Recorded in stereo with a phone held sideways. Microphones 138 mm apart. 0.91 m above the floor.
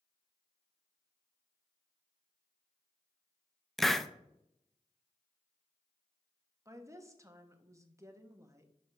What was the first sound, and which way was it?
A hiss, centre (ahead or behind).